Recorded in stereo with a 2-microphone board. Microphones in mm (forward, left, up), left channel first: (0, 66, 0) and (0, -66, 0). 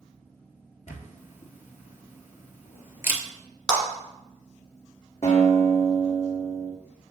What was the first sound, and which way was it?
A camera shutter, 70° left (ahead or behind).